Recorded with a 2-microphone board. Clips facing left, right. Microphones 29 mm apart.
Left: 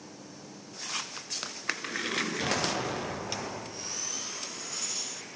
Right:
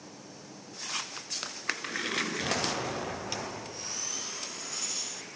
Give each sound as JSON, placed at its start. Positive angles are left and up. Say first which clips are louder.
{"t": 2.4, "sound": "an explosion", "louder": "left 1 dB", "side_deg": 15, "distance_m": 2.5}